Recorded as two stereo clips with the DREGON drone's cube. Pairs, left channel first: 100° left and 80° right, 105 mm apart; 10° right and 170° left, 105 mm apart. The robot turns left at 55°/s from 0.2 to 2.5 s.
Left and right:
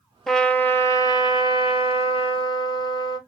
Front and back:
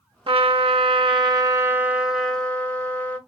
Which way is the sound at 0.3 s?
170° right.